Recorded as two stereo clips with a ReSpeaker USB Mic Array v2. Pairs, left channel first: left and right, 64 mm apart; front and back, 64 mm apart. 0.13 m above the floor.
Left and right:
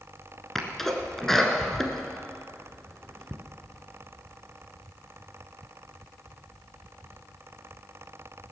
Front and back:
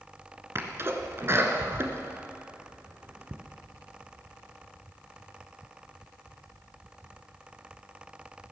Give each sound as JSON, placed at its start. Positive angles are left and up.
{"t": 0.6, "sound": "a sneeze", "azimuth_deg": 170, "distance_m": 1.7}